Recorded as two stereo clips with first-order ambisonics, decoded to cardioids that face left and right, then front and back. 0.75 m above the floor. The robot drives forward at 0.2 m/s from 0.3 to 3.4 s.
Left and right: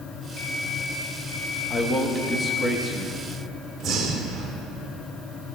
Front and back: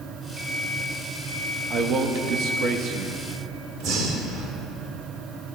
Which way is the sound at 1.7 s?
150° left.